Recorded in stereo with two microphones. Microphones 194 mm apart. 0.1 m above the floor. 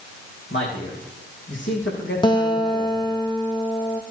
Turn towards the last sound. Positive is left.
turn(degrees=25)  # may be behind; listen again after turning